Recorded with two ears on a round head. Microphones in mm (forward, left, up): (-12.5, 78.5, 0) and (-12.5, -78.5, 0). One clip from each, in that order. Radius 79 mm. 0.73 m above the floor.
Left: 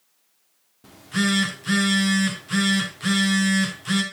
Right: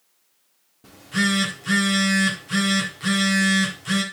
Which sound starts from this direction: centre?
A phone buzzing, at 0.8 s.